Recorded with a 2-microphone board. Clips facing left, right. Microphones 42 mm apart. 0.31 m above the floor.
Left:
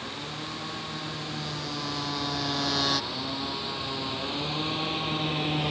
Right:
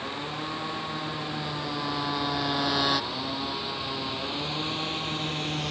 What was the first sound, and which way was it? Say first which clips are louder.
A motorcycle: right 3 dB; 25° right (ahead or behind).